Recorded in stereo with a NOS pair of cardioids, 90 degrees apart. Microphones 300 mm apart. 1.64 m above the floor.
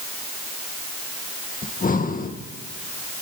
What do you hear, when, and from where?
1.6 s breathing: 30° left, 1.8 m